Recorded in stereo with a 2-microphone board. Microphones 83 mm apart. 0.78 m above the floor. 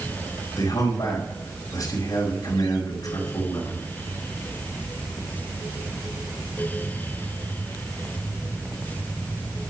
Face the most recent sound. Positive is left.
turn(degrees=60)  # may be behind; listen again after turning